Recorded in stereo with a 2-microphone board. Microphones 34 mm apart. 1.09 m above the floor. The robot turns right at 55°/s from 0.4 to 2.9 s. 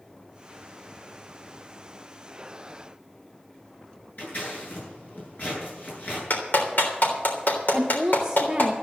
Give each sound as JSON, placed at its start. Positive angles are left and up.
{"t": 4.2, "sound": "scissors", "side_deg": 50, "distance_m": 9.0}
{"t": 6.3, "sound": "a clap", "side_deg": 65, "distance_m": 3.5}
{"t": 7.7, "sound": "a woman speaking", "side_deg": -15, "distance_m": 1.1}